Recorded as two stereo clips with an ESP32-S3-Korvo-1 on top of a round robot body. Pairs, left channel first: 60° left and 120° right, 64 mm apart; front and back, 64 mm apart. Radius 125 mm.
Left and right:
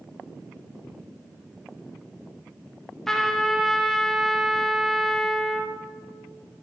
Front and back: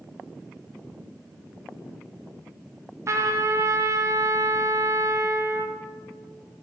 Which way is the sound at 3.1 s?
145° left.